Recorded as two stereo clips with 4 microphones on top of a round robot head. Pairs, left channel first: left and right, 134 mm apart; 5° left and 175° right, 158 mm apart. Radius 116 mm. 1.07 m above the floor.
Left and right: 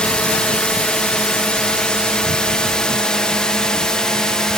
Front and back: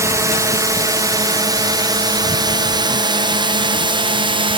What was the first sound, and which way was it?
A drone, 160° left.